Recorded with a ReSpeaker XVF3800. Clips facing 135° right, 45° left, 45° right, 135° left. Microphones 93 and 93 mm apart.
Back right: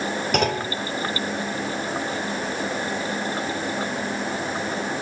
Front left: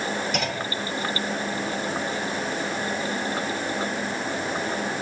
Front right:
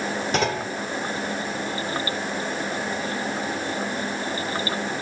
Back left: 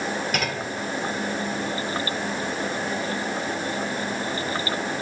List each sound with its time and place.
0.3 s a clunk: 105° right, 1.8 m